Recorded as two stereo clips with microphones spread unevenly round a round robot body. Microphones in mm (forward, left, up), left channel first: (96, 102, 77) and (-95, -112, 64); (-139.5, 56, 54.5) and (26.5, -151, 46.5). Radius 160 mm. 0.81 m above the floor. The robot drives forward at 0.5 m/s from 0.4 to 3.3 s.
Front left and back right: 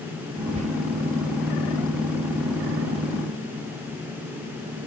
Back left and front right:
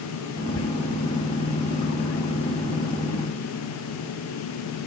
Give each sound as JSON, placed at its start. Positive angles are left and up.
{"t": 0.6, "sound": "whispering", "azimuth_deg": 160, "distance_m": 1.1}